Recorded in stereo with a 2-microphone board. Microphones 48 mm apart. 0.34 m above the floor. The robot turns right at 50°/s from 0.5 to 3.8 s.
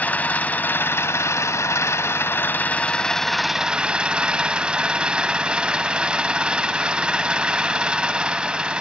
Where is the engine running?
35° left, 1.1 m; by 8.8 s 160° right, 1.1 m.